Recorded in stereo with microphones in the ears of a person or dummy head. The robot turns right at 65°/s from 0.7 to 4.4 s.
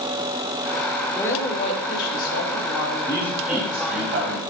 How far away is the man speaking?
About 4 m.